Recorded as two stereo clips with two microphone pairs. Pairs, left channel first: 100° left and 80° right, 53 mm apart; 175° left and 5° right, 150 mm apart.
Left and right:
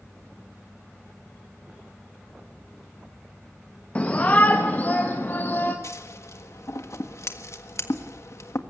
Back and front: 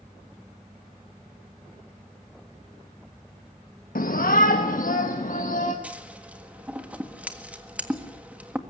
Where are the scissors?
75° left, 1.5 m.